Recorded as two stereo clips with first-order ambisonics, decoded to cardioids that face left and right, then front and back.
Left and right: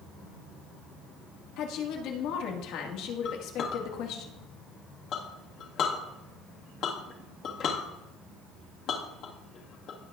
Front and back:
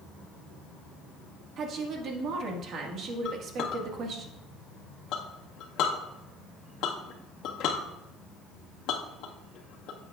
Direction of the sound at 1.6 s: 125° left.